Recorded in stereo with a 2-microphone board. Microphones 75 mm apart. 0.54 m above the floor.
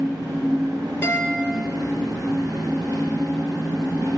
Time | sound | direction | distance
0.0 | an engine running | 75° right (ahead or behind) | 2.5 m
1.0 | a guitar | 35° left (ahead or behind) | 0.8 m